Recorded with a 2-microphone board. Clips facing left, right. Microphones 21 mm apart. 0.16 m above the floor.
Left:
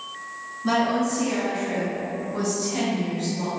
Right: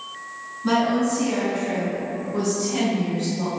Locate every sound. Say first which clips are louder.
0.6 s a woman speaking: right 2 dB; 10° right (ahead or behind), 1.3 m; by 3.5 s 25° right (ahead or behind), 1.4 m